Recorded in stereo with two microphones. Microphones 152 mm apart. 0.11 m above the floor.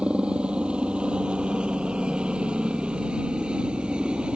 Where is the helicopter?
5° right (ahead or behind).